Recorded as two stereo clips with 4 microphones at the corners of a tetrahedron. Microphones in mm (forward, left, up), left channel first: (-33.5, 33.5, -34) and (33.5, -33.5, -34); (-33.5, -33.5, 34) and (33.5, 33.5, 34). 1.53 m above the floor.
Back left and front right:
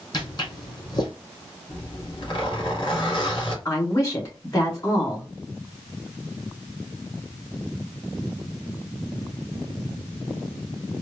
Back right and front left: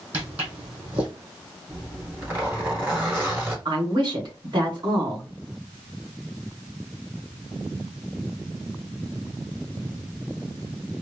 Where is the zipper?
105° left, 2.5 m.